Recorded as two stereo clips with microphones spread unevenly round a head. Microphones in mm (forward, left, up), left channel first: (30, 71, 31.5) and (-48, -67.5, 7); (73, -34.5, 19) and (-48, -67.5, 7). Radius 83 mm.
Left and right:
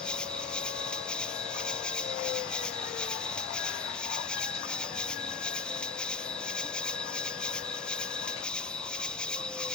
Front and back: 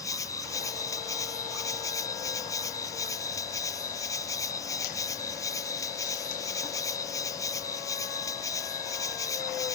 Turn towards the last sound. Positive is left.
turn(degrees=-35)